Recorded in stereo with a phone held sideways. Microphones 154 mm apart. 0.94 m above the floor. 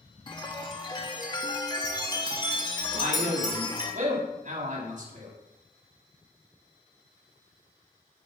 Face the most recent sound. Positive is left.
turn(degrees=-55)  # may be behind; listen again after turning